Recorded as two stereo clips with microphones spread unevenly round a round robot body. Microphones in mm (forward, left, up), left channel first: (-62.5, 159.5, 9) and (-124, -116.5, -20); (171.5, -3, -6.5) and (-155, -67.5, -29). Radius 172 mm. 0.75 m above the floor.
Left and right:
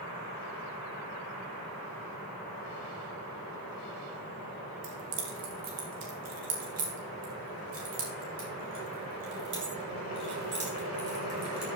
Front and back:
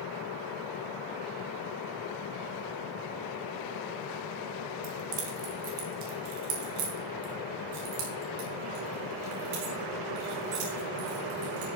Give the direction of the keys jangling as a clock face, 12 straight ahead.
4 o'clock.